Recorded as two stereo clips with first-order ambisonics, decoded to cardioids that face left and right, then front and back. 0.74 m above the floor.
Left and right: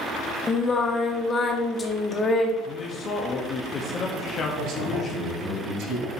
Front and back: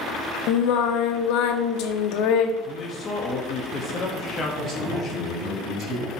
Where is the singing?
20° left, 0.7 m.